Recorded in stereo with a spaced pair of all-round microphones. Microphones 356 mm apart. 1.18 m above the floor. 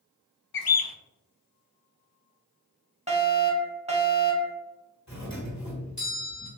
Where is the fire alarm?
20° right (ahead or behind), 1.2 m.